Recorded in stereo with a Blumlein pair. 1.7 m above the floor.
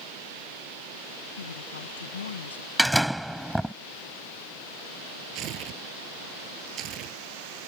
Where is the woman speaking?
70° left; by 2.7 s 65° left.